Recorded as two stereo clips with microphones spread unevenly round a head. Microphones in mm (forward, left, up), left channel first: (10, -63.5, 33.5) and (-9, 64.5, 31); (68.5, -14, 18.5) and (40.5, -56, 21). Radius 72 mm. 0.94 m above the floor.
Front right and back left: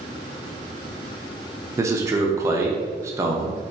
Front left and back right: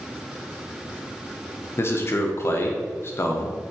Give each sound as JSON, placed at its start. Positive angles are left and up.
{"t": 1.8, "sound": "a man speaking", "azimuth_deg": 30, "distance_m": 0.6}